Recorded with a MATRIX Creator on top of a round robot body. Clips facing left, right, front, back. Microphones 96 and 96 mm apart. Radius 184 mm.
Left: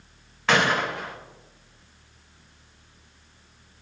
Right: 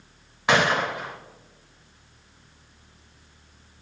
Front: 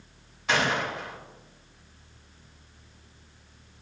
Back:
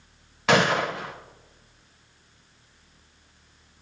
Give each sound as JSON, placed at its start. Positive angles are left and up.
{"t": 0.5, "sound": "a gunshot", "azimuth_deg": -165, "distance_m": 0.6}